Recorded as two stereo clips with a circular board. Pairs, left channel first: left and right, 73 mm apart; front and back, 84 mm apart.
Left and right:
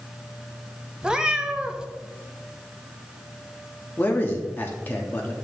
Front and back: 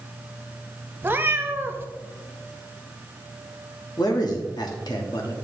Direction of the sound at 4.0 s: 30° left.